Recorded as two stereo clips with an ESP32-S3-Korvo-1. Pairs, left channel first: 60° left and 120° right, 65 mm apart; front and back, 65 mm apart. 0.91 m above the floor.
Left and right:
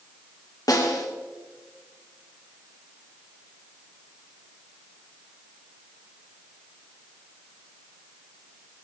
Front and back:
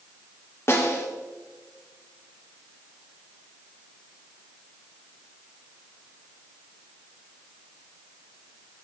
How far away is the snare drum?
About 2.5 m.